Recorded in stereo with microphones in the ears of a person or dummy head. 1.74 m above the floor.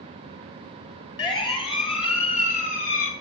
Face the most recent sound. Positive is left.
turn(degrees=45)  # may be behind; listen again after turning